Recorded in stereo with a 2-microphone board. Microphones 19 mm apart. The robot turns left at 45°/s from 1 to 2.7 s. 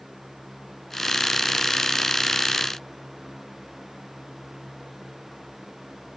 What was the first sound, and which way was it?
Only background noise.